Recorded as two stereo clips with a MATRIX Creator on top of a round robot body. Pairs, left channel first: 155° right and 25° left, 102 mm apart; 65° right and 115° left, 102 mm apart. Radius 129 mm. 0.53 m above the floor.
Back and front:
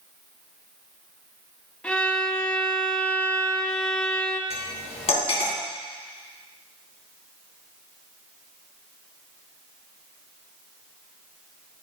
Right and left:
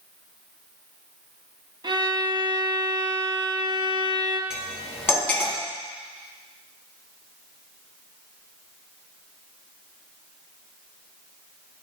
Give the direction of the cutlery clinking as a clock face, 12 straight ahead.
5 o'clock.